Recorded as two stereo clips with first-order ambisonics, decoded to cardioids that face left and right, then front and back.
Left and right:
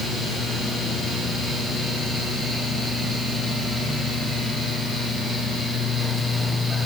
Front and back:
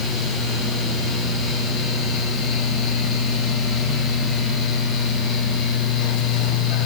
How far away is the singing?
No singing in this recording.